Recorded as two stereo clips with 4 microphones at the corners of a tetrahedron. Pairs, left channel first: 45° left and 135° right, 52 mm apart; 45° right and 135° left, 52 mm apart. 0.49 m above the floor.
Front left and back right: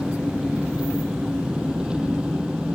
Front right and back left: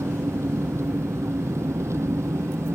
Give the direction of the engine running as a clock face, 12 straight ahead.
7 o'clock.